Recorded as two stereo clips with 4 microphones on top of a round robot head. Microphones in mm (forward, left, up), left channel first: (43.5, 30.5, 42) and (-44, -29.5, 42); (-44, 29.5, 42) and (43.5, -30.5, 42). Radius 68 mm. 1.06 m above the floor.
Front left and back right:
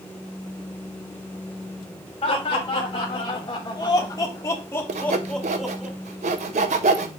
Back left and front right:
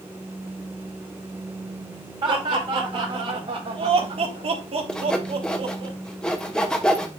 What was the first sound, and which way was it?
Laughter, 5° left.